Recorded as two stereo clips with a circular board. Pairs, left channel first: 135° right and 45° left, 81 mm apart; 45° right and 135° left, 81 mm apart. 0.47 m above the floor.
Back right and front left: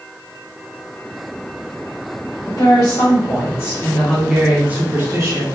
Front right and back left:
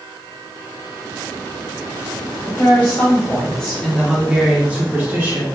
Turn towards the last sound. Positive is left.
turn(degrees=75)